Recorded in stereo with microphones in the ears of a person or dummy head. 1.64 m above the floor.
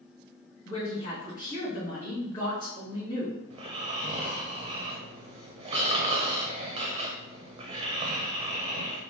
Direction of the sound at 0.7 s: 30° left (ahead or behind).